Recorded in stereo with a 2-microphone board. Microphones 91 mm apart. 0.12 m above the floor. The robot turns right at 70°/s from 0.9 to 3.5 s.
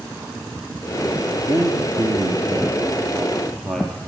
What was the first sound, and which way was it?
A man speaking, 135° right.